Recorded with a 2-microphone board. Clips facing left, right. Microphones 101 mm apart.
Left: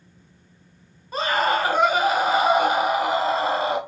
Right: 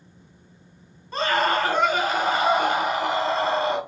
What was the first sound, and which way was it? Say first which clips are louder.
A scream: even; 10° left (ahead or behind).